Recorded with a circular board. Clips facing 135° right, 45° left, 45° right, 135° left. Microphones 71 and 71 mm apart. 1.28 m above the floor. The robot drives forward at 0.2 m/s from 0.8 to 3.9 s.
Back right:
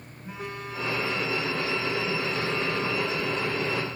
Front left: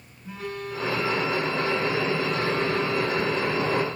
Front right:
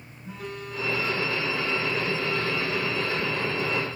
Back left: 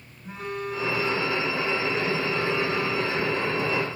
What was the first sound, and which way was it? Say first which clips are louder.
A phone buzzing: front left 3 dB, back left 5 dB; 165° left.